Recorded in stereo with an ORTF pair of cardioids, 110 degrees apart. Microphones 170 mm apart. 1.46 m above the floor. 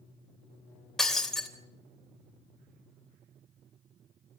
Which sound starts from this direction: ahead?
Breaking glass, at 1.0 s.